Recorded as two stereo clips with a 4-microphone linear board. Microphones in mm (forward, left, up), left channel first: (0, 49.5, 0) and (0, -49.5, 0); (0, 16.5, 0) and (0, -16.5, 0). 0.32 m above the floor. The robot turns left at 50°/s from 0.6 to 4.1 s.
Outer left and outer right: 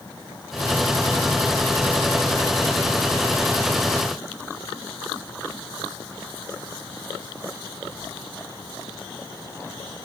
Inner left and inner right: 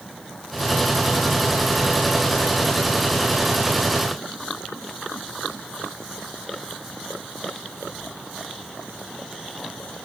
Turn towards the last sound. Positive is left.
No sound to turn to.